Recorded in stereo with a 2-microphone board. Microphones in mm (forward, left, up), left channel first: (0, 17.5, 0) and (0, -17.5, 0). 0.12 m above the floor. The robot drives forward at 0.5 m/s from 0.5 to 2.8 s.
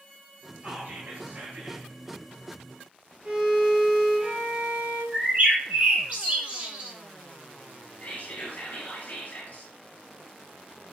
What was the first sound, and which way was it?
Whispering, 40° right (ahead or behind).